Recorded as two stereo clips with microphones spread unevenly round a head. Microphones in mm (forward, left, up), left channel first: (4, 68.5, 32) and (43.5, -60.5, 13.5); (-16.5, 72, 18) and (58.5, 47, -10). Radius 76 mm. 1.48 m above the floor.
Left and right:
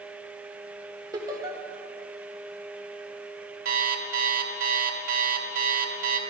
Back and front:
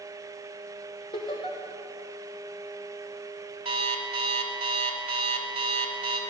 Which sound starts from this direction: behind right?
Laughter, at 1.1 s.